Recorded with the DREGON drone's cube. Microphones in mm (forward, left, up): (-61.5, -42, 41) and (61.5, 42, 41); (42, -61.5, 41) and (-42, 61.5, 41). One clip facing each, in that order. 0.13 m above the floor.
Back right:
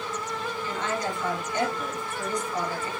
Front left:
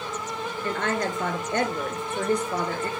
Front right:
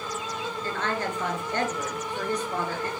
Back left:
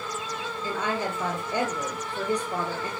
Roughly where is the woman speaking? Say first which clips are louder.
Front left 4 dB, back left 2 dB; ahead left.